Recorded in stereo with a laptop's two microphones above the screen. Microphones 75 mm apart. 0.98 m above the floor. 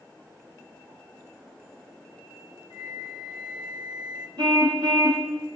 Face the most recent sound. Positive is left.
turn(degrees=-65)  # may be behind; listen again after turning